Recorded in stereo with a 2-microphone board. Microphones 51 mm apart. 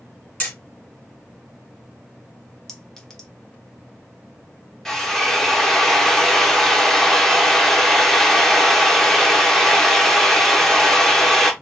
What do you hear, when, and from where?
0.4 s hammering: 25° left (ahead or behind), 3 m
2.7 s a clink: 10° left (ahead or behind), 1.2 m
4.8 s a drill: 10° left (ahead or behind), 1.3 m